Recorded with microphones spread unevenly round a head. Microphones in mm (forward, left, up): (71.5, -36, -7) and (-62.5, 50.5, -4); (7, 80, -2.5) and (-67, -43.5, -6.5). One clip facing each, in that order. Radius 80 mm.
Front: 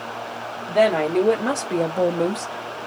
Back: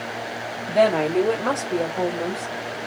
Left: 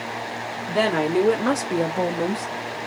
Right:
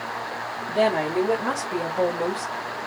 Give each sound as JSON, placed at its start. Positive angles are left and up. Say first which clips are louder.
{"t": 0.7, "sound": "a woman speaking", "louder": "even, left 1 dB", "azimuth_deg": 60, "distance_m": 1.3}